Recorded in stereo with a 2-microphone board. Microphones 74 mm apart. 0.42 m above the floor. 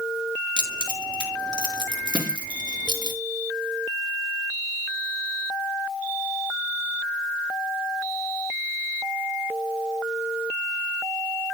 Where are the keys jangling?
75° right (ahead or behind), 4 m.